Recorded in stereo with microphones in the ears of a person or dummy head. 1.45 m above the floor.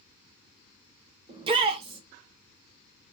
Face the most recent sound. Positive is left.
turn(degrees=-30)  # may be behind; listen again after turning